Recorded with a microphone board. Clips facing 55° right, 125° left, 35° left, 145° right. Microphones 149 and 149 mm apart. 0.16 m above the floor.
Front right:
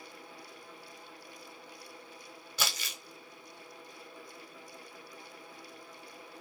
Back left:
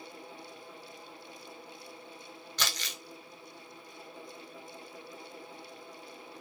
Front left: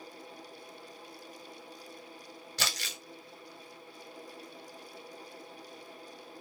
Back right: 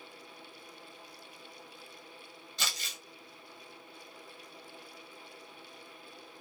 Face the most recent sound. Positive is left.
turn(degrees=25)